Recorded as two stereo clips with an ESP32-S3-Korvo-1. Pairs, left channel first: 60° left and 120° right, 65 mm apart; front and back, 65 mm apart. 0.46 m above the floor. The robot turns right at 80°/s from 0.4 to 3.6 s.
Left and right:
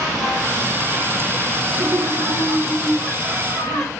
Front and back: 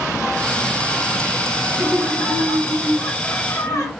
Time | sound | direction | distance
1.7 | laughter | 135° right | 1.9 m